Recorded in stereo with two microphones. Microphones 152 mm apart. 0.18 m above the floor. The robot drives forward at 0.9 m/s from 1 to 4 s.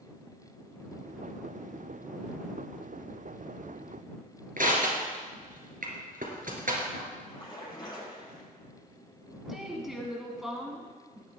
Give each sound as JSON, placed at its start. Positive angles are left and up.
{"t": 4.6, "sound": "crushing", "side_deg": -65, "distance_m": 2.5}
{"t": 7.3, "sound": "a splash", "side_deg": 30, "distance_m": 5.0}
{"t": 9.5, "sound": "a woman speaking", "side_deg": -5, "distance_m": 1.5}